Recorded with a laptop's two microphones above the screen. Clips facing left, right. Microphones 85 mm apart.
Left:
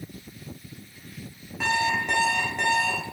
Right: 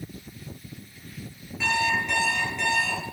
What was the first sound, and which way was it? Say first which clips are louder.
An alarm clock: left 1 dB; 55° left (ahead or behind).